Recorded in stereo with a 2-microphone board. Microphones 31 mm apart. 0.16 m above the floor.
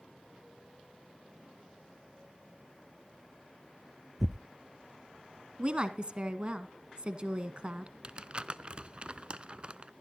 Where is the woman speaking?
35° right (ahead or behind), 1.4 m.